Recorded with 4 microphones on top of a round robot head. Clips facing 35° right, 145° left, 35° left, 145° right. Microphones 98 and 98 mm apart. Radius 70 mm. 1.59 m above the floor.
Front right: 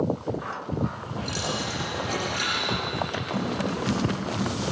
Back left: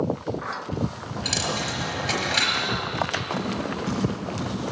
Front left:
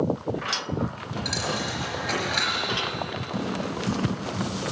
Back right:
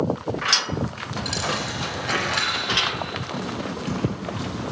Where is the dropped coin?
125° left, 4.5 m.